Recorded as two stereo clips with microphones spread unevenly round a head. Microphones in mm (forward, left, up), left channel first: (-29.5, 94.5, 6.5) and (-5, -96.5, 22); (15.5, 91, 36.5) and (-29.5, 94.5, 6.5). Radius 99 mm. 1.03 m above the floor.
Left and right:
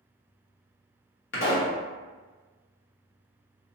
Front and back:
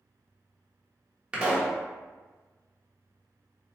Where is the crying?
No crying in this recording.